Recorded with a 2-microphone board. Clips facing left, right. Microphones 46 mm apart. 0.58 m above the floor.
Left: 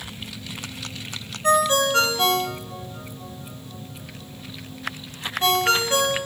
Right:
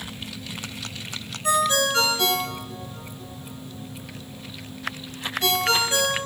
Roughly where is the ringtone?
Left.